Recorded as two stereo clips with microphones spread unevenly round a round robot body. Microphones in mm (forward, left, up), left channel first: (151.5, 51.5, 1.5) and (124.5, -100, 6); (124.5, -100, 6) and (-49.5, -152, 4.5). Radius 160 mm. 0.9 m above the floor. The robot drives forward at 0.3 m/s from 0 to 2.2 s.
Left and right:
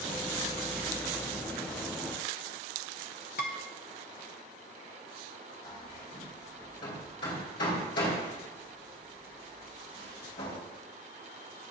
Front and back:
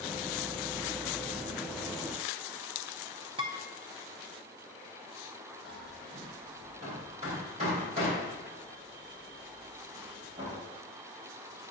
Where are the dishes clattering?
125° left, 0.6 m.